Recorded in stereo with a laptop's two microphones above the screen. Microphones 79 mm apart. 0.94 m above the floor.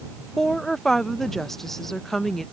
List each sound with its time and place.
0.4 s a woman speaking: 5° left (ahead or behind)